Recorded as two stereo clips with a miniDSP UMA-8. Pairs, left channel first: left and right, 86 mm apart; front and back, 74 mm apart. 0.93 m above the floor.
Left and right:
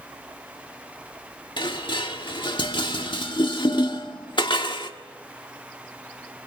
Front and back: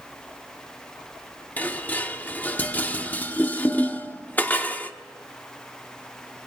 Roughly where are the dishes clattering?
Ahead left.